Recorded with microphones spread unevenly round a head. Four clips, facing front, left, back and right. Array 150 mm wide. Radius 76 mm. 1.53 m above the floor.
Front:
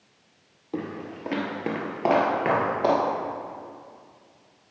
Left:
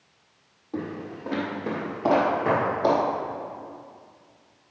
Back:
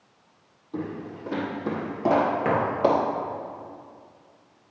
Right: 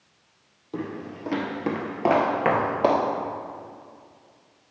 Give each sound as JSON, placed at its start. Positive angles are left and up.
{"t": 0.7, "sound": "footsteps", "azimuth_deg": -5, "distance_m": 2.5}